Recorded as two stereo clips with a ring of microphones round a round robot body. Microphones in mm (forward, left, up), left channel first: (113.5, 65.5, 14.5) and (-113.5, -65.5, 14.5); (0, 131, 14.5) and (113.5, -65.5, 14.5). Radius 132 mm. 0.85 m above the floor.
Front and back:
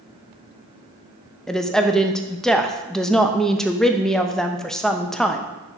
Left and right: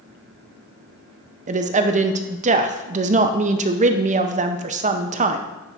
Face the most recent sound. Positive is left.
turn(degrees=-55)